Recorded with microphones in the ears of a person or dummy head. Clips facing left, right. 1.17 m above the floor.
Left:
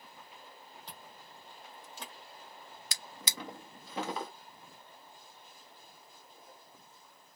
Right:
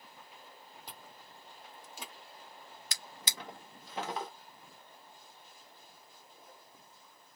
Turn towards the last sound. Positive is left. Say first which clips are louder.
# left 2 dB
turn(degrees=70)  # may be behind; listen again after turning